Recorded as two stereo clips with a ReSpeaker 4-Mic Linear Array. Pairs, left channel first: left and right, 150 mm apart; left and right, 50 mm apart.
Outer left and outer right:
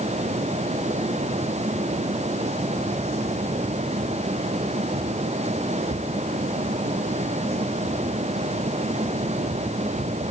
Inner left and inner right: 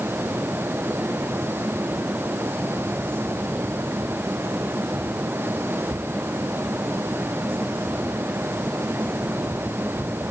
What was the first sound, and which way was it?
Only background noise.